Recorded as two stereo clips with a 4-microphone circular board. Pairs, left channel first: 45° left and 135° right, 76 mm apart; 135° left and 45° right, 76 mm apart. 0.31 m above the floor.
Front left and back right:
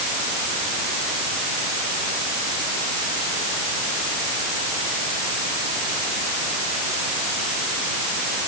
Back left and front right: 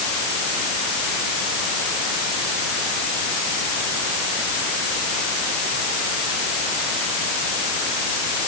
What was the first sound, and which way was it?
Only background noise.